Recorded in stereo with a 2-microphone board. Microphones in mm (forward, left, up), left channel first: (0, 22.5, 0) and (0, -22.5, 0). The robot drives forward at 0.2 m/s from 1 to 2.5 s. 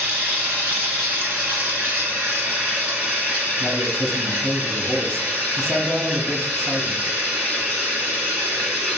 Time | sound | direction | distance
0.0 | running water | 45° right (ahead or behind) | 1.4 m
3.6 | a man speaking | 10° left (ahead or behind) | 0.6 m